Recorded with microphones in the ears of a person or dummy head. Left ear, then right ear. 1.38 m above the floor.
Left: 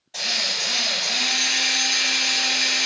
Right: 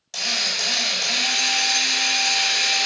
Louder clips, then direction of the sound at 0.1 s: Right 1 dB; 65° right (ahead or behind).